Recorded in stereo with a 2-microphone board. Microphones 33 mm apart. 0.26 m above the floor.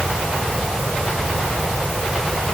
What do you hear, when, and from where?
Only background noise.